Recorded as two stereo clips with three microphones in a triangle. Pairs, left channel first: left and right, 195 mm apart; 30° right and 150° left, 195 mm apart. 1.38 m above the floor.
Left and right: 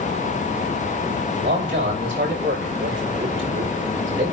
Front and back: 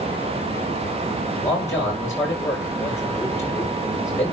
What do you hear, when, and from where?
1.4 s a man speaking: 105° right, 6.5 m